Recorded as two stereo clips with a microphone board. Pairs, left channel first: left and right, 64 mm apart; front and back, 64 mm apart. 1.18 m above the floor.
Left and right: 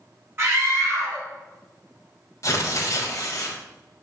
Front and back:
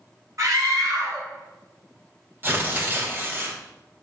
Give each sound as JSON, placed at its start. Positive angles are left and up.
{"t": 0.4, "sound": "a scream", "azimuth_deg": -145, "distance_m": 3.5}
{"t": 2.4, "sound": "tearing paper", "azimuth_deg": 125, "distance_m": 1.6}